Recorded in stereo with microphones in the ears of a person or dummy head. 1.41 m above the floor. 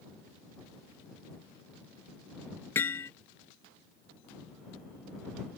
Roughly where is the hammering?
Centre.